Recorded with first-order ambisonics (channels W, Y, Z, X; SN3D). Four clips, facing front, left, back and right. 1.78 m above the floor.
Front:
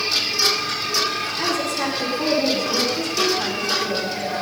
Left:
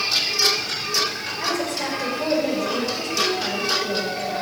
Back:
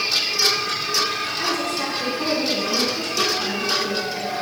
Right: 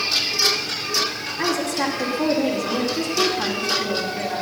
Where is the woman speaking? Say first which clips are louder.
Right 3 dB, front 2 dB; 90° right, 4.5 m.